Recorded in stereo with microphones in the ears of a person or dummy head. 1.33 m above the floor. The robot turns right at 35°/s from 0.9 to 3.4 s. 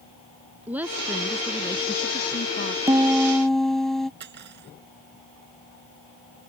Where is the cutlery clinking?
45° right (ahead or behind).